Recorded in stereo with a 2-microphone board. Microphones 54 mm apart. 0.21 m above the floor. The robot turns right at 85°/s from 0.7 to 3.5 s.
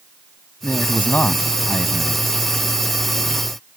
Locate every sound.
0.6 s a man speaking: 70° left; by 2.2 s 160° right